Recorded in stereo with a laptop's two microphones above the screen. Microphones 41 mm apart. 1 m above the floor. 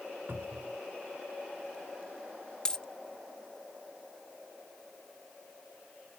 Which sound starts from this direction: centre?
A dropped coin, at 2.6 s.